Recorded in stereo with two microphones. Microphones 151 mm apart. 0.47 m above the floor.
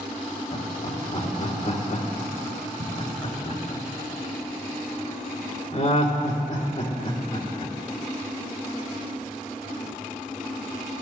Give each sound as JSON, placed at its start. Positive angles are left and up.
{"t": 0.5, "sound": "laughter", "side_deg": 50, "distance_m": 2.0}